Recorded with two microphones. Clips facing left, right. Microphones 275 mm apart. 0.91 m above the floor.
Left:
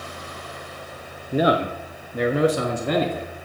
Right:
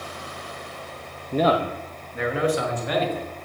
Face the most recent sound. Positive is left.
turn(degrees=60)  # may be behind; listen again after turning